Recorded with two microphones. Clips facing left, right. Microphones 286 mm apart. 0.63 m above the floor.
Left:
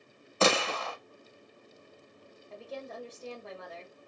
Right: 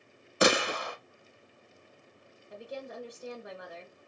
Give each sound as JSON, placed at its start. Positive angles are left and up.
{"t": 0.4, "sound": "a gunshot", "side_deg": -15, "distance_m": 0.6}
{"t": 2.5, "sound": "a woman speaking", "side_deg": -15, "distance_m": 1.7}